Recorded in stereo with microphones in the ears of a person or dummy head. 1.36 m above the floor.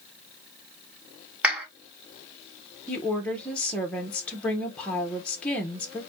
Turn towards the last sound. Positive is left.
turn(degrees=5)  # may be behind; listen again after turning